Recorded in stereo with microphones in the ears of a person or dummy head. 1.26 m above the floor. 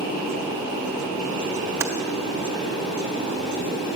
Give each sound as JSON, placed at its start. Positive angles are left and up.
{"t": 0.0, "sound": "a fan", "side_deg": 20, "distance_m": 3.5}
{"t": 1.8, "sound": "typing on a keyboard", "side_deg": -15, "distance_m": 0.5}